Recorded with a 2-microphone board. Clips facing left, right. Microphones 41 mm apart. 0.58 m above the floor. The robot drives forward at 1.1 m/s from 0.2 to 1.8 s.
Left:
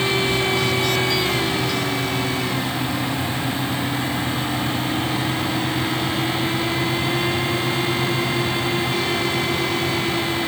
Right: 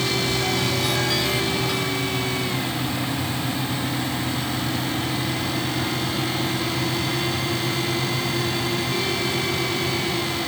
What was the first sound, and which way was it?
Only background noise.